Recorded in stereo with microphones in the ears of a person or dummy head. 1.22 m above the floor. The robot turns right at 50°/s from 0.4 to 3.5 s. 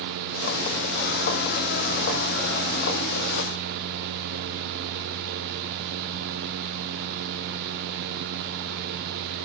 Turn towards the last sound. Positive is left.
No sound to turn to.